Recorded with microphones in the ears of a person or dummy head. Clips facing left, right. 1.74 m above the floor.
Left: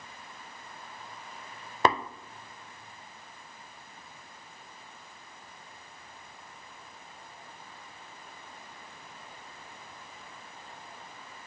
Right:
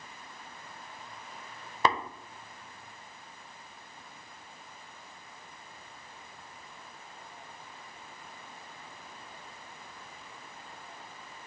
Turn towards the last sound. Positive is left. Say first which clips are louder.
# left 3 dB
turn(degrees=40)  # may be behind; listen again after turning